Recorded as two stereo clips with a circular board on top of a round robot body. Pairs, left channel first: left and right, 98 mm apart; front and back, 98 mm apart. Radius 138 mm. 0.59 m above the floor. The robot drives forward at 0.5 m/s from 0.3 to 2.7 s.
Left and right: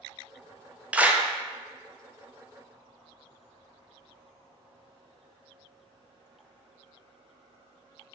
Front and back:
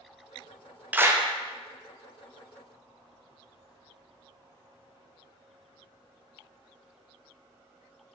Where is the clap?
140° right, 0.6 m; by 1.2 s 160° right, 0.6 m.